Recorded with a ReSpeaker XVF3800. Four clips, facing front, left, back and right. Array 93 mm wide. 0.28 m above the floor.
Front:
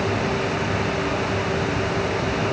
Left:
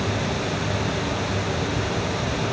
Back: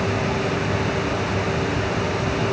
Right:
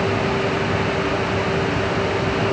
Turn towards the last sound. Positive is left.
No sound to turn to.